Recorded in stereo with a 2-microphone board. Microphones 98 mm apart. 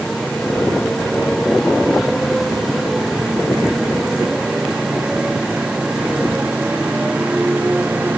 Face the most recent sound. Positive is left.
turn(degrees=-15)  # may be behind; listen again after turning